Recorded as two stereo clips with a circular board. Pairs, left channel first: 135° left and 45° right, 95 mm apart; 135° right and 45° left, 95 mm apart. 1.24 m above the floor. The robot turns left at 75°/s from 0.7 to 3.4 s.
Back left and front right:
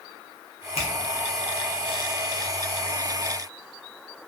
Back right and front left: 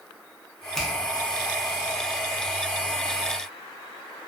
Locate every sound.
0.8 s a finger snap: 140° left, 0.6 m; by 0.9 s 125° left, 0.6 m